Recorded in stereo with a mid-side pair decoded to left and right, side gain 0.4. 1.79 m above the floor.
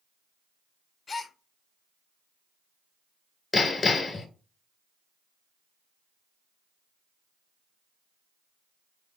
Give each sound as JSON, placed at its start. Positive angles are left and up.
{"t": 1.1, "sound": "a gasp", "azimuth_deg": 45, "distance_m": 0.7}
{"t": 3.5, "sound": "hammering", "azimuth_deg": 40, "distance_m": 1.5}